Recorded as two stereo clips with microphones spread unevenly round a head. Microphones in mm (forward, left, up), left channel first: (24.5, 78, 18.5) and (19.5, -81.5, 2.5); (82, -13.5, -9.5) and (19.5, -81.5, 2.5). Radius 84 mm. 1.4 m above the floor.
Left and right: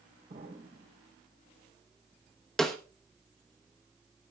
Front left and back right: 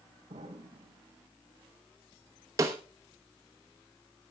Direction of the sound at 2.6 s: 170° left.